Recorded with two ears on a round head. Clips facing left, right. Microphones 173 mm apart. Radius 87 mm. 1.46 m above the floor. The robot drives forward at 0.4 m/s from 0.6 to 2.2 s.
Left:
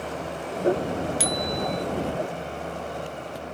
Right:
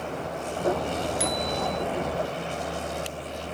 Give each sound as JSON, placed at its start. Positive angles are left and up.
{"t": 1.2, "sound": "a bicycle bell", "side_deg": 35}